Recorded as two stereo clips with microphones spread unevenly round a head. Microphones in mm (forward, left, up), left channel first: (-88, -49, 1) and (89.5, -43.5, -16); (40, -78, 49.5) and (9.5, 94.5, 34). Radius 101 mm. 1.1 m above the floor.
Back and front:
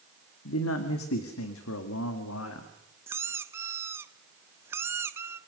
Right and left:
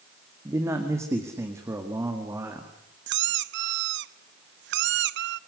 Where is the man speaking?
175° left, 2 m.